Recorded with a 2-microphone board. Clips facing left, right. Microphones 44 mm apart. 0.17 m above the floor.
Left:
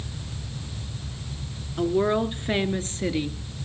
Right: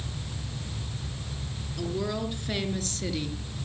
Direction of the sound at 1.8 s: 40° left (ahead or behind).